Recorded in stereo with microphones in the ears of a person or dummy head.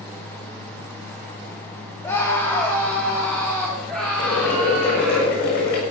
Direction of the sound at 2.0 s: 15° left (ahead or behind).